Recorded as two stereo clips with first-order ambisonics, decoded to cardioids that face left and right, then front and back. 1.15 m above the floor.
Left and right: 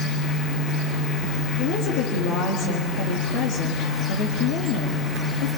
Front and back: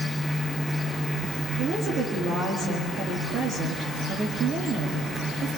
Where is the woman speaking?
115° left, 2.5 m.